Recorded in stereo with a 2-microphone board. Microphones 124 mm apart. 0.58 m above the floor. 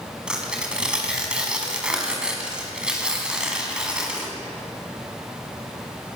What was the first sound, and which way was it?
Tearing paper, 10° right (ahead or behind).